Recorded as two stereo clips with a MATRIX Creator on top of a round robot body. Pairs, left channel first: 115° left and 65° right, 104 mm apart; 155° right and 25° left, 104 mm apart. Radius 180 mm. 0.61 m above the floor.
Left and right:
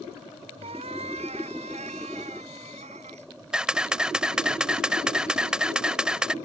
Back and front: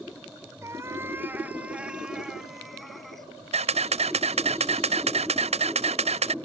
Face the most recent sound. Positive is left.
turn(degrees=15)